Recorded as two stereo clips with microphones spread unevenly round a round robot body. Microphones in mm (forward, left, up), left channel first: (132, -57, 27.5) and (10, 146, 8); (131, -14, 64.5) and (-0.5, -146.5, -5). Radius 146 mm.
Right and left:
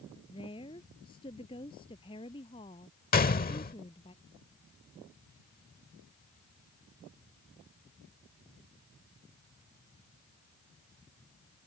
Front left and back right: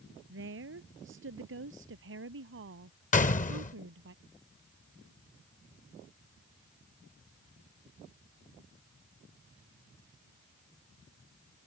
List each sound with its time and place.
0.3 s a woman speaking: 135° right
3.1 s a gunshot: 5° right